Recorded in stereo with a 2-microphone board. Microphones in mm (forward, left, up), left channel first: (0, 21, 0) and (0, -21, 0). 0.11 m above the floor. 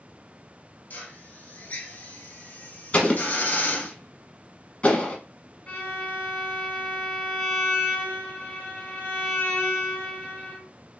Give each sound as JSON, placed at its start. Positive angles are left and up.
{"t": 0.9, "sound": "a drill", "side_deg": 40, "distance_m": 1.0}
{"t": 2.9, "sound": "an explosion", "side_deg": 25, "distance_m": 1.2}
{"t": 5.7, "sound": "a violin", "side_deg": 15, "distance_m": 1.4}